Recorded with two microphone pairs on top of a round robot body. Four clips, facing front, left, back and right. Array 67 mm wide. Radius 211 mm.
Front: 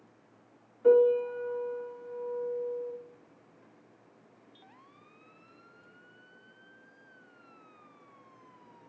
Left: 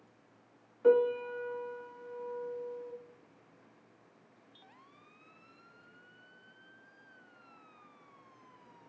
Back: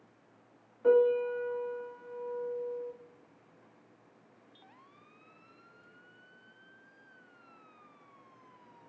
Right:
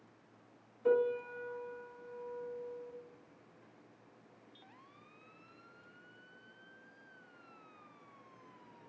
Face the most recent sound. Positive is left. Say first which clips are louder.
# left 5 dB, front 3 dB
turn(degrees=110)